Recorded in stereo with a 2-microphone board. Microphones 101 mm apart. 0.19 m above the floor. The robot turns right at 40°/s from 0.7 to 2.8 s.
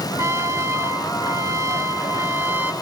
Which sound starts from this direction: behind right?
A trumpet, at 0.2 s.